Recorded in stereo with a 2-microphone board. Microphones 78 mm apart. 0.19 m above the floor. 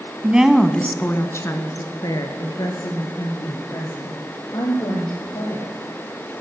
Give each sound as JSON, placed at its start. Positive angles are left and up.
{"t": 0.2, "sound": "a woman speaking", "side_deg": -20, "distance_m": 1.1}